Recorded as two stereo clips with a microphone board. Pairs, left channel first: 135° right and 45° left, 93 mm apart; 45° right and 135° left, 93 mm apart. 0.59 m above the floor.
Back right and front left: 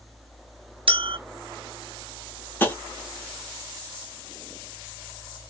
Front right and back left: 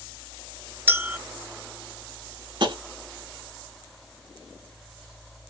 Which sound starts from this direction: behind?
Tapping, at 2.6 s.